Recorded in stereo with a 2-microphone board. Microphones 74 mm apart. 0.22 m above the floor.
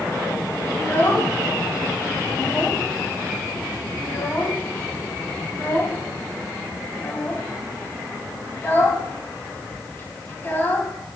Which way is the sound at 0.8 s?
25° left (ahead or behind).